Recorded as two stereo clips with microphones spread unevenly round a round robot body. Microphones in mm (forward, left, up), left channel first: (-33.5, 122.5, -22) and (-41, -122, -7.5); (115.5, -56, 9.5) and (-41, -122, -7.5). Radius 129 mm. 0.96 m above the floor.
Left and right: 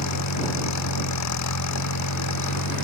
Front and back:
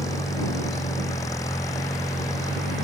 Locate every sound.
0.0 s an engine running: 100° left